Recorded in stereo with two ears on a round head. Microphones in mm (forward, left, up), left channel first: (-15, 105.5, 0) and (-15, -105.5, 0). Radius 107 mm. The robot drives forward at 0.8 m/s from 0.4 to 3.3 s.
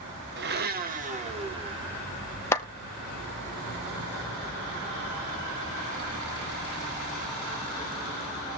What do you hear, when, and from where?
0.4 s a blender: 45° right (ahead or behind), 0.9 m; by 2.0 s 20° right (ahead or behind), 1.8 m
2.5 s a clap: 10° left (ahead or behind), 0.9 m